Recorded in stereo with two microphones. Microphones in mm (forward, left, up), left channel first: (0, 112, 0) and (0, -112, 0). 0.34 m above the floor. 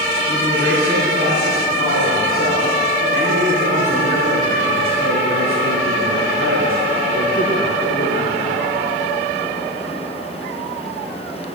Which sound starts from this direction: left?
A man speaking, at 0.3 s.